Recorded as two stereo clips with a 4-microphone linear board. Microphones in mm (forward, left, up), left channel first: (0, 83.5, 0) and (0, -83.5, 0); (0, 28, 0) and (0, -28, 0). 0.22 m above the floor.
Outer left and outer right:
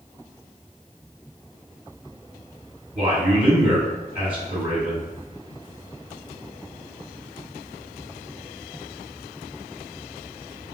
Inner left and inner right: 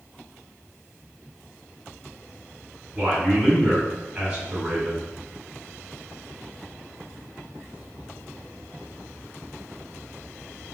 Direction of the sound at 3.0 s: 10° right (ahead or behind).